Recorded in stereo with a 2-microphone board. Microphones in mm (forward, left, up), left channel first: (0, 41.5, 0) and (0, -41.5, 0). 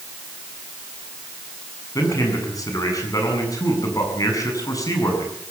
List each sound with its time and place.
1.9 s a man speaking: 40° left (ahead or behind), 7.5 m